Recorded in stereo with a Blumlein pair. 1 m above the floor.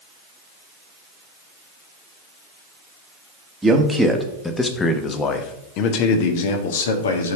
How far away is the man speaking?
About 1.3 m.